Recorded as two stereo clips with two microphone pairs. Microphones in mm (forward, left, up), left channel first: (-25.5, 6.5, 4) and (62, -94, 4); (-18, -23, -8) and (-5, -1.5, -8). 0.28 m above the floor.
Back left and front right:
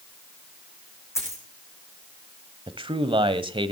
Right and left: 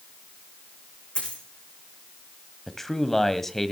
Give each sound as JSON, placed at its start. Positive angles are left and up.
{"t": 1.1, "sound": "a dropped coin", "azimuth_deg": -160, "distance_m": 7.0}
{"t": 2.7, "sound": "a man speaking", "azimuth_deg": -45, "distance_m": 1.3}